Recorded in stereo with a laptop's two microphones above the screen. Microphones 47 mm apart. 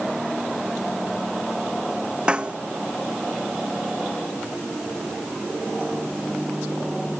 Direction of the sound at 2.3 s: 20° right (ahead or behind).